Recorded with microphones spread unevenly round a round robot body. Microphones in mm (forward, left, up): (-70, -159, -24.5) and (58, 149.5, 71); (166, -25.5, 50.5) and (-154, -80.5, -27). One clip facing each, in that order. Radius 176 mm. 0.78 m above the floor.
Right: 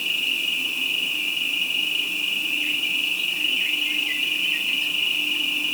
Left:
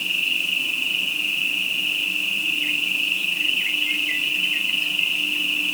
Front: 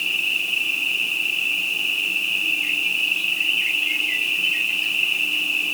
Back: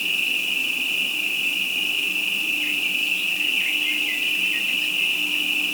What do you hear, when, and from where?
0.0 s an insect: straight behind, 3 m